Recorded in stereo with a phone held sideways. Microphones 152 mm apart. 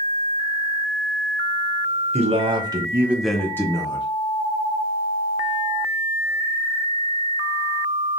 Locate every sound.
2.1 s a man speaking: 45° right (ahead or behind), 1.3 m; by 4.0 s 30° left (ahead or behind), 1.1 m